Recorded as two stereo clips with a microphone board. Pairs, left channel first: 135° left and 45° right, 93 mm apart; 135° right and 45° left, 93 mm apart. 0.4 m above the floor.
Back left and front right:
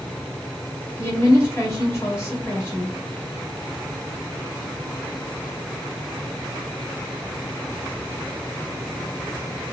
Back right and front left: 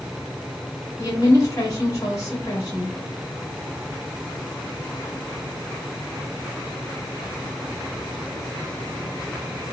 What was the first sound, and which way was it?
A woman speaking, 175° right.